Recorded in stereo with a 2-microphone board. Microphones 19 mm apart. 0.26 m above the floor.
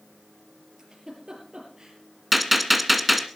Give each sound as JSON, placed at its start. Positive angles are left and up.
{"t": 0.8, "sound": "a giggle", "side_deg": -30, "distance_m": 5.0}
{"t": 2.3, "sound": "a gunshot", "side_deg": -10, "distance_m": 1.3}